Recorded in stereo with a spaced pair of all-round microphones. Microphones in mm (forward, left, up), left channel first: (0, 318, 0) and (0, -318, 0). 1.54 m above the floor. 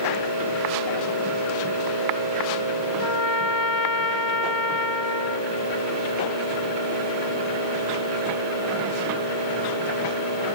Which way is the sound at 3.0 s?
45° left (ahead or behind).